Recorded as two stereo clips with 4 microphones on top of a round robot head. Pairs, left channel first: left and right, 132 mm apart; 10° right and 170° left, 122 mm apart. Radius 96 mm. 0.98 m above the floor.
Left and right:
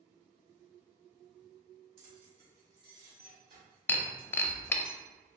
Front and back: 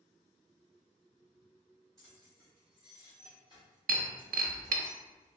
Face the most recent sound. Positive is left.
turn(degrees=165)